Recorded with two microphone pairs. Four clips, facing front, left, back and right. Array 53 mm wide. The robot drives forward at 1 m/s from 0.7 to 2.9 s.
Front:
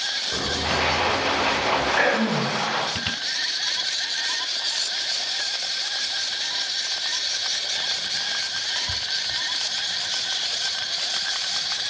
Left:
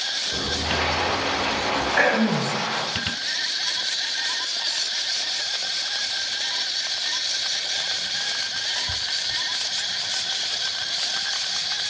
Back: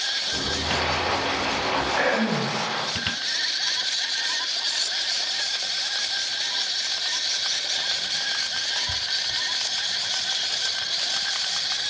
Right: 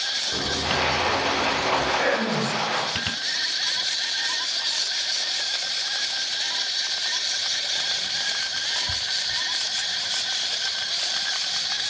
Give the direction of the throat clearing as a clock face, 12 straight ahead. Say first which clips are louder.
Left 3 dB, front 2 dB; 10 o'clock.